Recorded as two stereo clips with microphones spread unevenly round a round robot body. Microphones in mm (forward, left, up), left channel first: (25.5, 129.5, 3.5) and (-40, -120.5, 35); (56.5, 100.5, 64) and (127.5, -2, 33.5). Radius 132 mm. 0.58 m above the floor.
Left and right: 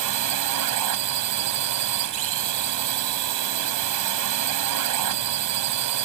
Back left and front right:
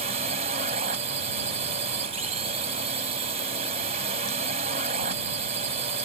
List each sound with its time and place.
0.0 s a drone: 95° right